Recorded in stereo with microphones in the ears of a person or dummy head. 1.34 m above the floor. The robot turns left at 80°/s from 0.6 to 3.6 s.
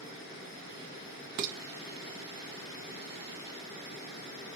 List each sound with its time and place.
1.4 s dishes clattering: 45° right (ahead or behind), 0.7 m; by 1.6 s 55° right (ahead or behind), 0.7 m